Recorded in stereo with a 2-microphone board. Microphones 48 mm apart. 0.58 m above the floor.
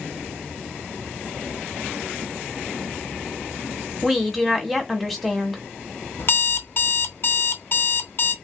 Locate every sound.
4.0 s a woman speaking: centre (ahead or behind), 1.1 m
6.2 s an alarm clock: 55° left (ahead or behind), 0.7 m